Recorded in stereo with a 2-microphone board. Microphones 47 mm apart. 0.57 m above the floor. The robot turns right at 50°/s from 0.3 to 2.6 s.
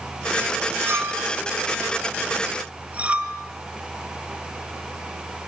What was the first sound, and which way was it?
A clink, 60° right (ahead or behind).